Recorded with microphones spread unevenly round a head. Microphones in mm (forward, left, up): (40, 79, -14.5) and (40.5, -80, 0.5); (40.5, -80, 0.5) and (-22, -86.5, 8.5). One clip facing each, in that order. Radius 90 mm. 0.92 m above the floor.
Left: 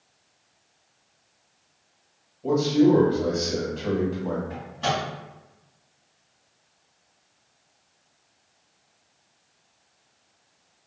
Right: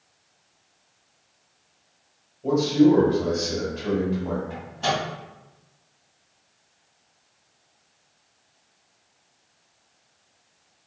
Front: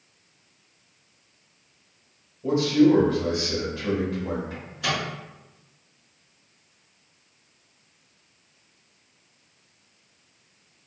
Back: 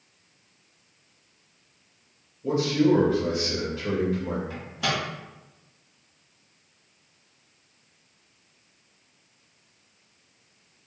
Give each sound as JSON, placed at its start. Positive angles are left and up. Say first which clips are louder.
{"t": 2.4, "sound": "a man speaking", "louder": "right 1 dB, front 3 dB", "azimuth_deg": 0, "distance_m": 1.3}
{"t": 4.5, "sound": "a microwave", "louder": "right 1 dB, even", "azimuth_deg": 175, "distance_m": 1.3}